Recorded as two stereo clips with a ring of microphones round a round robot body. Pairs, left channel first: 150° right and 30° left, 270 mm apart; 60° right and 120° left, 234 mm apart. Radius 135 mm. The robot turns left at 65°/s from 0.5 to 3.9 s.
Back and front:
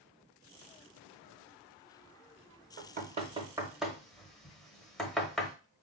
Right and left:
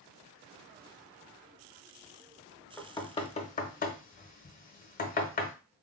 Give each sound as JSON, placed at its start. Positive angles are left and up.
{"t": 2.8, "sound": "knocking", "azimuth_deg": 10, "distance_m": 0.8}